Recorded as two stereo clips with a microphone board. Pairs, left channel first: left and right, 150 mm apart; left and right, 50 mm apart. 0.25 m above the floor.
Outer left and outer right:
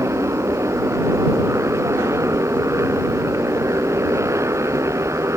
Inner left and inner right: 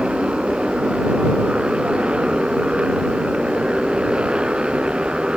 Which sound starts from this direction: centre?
A motorcycle, at 0.0 s.